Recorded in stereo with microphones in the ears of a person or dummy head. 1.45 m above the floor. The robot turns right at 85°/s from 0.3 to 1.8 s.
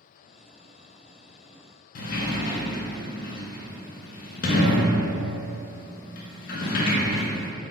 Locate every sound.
1.9 s a sliding door: 45° left (ahead or behind), 0.5 m